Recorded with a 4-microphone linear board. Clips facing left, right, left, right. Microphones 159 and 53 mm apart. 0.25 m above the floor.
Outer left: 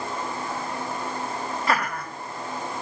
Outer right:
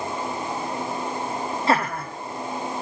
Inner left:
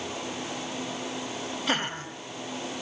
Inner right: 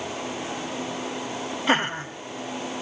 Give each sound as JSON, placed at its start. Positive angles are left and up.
{"t": 1.7, "sound": "laughter", "side_deg": -25, "distance_m": 1.5}